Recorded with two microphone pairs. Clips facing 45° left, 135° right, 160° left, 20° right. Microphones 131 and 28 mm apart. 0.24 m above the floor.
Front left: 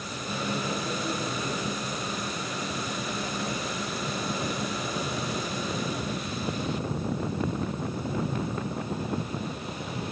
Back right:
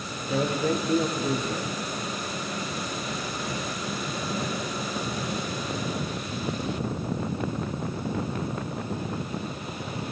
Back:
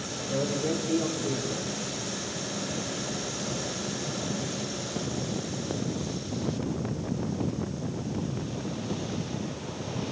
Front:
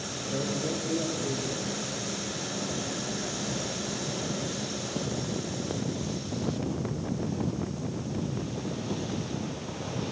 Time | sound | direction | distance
0.2 | a man speaking | 115° right | 4.5 m